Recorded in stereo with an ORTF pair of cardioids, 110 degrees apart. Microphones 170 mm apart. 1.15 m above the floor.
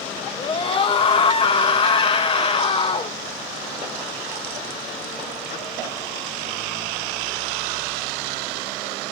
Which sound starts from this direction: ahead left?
A scream, at 0.4 s.